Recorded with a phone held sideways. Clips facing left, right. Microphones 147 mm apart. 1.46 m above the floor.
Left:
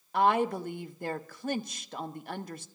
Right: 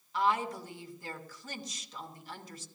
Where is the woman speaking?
60° left (ahead or behind), 1.0 m.